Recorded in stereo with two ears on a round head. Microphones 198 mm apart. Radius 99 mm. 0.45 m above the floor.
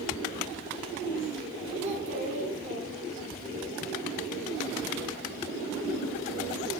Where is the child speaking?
30° right (ahead or behind), 4 m.